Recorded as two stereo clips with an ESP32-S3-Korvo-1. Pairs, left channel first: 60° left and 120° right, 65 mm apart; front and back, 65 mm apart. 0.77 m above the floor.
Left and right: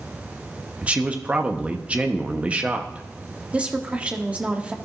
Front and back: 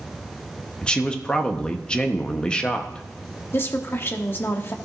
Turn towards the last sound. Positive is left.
turn(degrees=-50)